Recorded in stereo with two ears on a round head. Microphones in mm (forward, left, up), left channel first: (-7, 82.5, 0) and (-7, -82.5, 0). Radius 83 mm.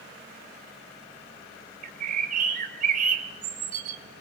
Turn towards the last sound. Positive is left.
turn(degrees=-45)  # may be behind; listen again after turning